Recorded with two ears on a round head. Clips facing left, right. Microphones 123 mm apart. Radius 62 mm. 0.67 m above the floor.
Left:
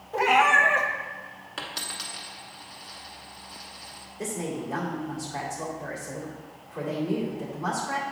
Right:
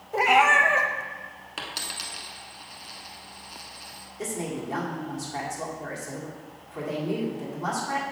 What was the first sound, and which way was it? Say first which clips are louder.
A cat meowing: right 1 dB; 10° right (ahead or behind).